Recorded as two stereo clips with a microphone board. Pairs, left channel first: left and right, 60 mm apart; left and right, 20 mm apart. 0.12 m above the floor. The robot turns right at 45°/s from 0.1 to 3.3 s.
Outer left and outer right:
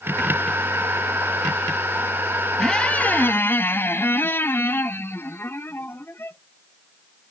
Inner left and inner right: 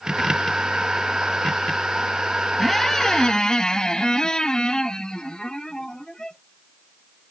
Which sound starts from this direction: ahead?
A squeak, at 2.6 s.